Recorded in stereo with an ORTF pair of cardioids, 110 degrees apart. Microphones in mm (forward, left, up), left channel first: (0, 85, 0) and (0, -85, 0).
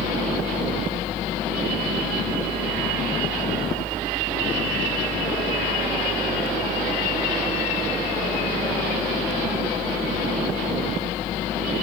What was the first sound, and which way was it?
A fan, straight ahead.